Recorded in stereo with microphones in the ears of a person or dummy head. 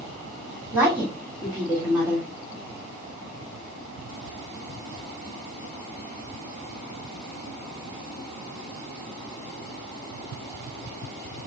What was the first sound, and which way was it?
A woman speaking, 10° right (ahead or behind).